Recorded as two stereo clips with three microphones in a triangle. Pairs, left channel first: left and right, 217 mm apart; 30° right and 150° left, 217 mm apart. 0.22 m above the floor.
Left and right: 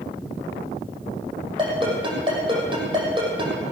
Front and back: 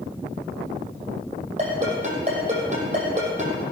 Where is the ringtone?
155° right, 6 m.